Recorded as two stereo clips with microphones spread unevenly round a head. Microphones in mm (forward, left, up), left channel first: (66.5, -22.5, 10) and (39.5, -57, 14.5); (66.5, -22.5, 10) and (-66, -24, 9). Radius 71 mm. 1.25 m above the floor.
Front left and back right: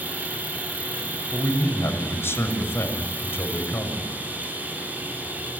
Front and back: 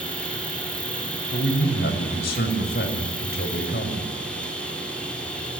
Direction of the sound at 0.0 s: 80° right.